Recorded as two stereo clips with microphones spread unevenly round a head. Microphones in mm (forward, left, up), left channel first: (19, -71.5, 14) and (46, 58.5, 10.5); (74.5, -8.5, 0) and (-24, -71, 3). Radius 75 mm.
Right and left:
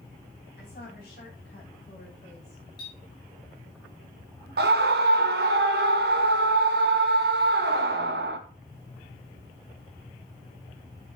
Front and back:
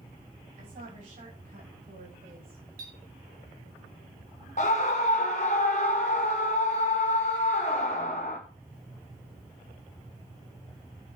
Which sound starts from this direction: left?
A scream, at 4.6 s.